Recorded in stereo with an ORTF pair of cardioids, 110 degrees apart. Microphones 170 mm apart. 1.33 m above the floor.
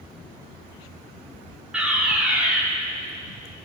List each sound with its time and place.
1.7 s a fire alarm: 5° right, 6 m